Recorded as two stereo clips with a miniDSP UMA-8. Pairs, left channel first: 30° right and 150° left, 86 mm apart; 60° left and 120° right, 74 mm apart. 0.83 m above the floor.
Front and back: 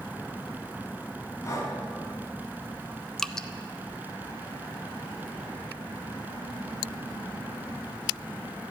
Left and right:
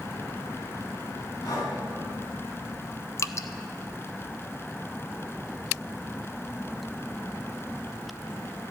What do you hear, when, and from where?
1.4 s breathing: 30° left, 3.5 m
3.2 s dripping: 50° left, 0.5 m